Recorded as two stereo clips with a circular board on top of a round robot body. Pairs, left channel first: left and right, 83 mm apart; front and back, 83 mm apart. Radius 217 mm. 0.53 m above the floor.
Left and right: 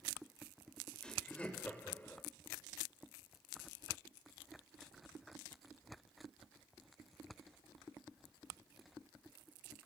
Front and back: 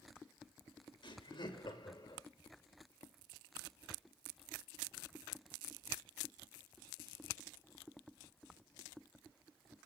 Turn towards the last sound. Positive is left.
turn(degrees=30)